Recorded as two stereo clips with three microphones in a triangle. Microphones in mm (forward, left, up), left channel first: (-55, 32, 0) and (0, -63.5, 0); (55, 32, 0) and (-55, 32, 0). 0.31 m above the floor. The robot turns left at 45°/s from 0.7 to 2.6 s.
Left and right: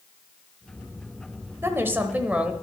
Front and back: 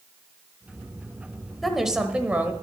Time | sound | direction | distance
1.6 | a woman speaking | 90° right | 1.0 m